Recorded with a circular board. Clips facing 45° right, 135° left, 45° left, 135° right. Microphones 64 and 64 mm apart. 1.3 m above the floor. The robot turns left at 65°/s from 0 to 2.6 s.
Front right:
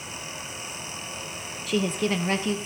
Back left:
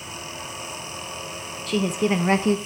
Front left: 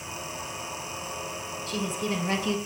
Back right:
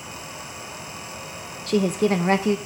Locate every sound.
1.7 s a woman speaking: 130° right, 0.7 m; by 2.6 s 170° left, 0.7 m